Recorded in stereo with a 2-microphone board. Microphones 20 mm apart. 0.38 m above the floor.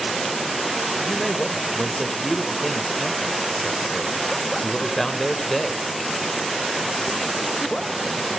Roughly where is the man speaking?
Centre.